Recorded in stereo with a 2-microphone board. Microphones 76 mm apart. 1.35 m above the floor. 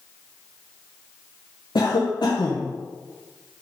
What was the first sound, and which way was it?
A cough, 70° left (ahead or behind).